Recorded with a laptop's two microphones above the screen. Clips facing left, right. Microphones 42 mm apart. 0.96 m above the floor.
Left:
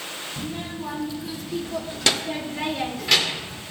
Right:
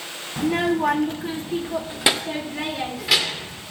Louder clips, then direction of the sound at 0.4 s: Right 14 dB; 80° right.